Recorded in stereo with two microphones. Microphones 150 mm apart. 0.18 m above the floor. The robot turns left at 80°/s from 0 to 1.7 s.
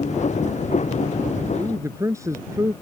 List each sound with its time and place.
1.5 s a man speaking: 30° right (ahead or behind); by 2.7 s 20° right (ahead or behind)